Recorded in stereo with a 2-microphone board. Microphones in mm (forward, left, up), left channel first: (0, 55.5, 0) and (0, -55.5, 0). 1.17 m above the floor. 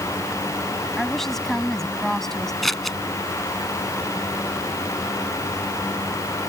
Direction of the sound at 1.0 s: 5° left (ahead or behind).